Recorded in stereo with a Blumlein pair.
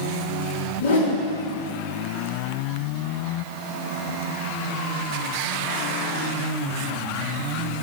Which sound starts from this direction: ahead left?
A whoosh, at 0.8 s.